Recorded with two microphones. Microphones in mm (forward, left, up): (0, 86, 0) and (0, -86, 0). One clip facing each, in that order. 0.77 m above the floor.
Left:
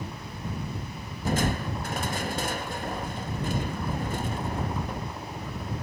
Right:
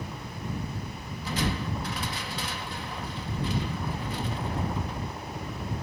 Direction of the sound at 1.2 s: 45° left (ahead or behind).